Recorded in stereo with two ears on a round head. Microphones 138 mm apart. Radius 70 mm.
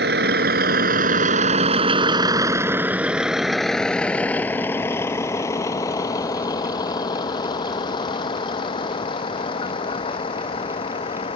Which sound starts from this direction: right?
A vehicle, at 0.0 s.